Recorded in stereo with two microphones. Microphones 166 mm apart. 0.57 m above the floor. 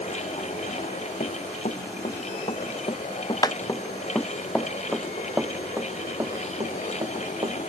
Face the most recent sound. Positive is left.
turn(degrees=-35)  # may be behind; listen again after turning